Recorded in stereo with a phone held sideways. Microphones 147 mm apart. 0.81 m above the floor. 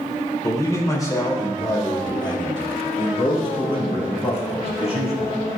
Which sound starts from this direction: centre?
A man speaking, at 0.4 s.